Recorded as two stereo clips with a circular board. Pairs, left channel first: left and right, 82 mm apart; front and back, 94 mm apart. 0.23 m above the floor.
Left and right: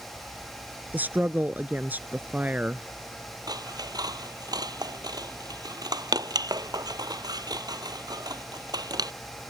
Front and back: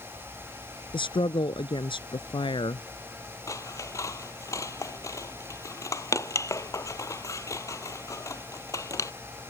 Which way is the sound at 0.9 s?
20° right.